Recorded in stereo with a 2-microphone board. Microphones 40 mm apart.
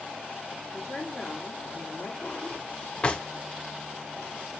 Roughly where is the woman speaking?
Centre.